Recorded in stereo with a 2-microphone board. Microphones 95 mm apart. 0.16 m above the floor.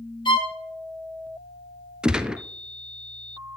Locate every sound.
0.2 s a violin: 55° left (ahead or behind), 1.6 m
2.0 s a gunshot: 10° right (ahead or behind), 0.5 m